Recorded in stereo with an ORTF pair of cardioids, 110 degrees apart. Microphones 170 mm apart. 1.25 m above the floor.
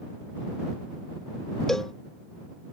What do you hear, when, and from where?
1.7 s a cowbell: 5° left